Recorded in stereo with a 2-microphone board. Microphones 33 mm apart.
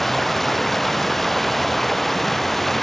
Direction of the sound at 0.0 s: 5° left (ahead or behind).